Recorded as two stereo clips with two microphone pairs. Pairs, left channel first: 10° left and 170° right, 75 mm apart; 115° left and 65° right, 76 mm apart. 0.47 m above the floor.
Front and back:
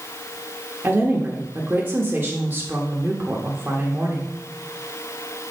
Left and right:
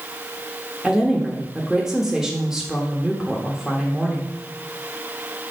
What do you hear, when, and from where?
0.8 s a woman speaking: 135° right, 1.2 m